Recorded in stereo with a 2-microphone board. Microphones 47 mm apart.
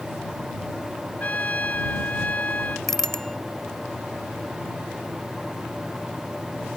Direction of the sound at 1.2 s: 35° left (ahead or behind).